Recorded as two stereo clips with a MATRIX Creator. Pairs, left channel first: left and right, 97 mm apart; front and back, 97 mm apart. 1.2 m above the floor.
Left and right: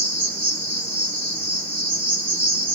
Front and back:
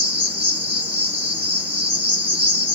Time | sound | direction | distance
0.0 | an insect | 140° right | 1.2 m